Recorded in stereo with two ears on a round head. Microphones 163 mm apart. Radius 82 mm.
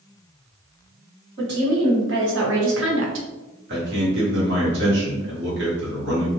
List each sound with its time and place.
1.4 s a woman speaking: 60° right (ahead or behind), 1.7 m; by 3.3 s 70° right (ahead or behind), 0.6 m
3.7 s a man speaking: 65° right (ahead or behind), 1.4 m